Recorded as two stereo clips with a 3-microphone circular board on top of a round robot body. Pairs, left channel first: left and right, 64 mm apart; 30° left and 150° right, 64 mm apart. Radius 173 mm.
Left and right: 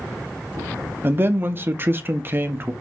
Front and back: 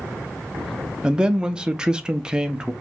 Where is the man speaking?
85° right, 0.8 m.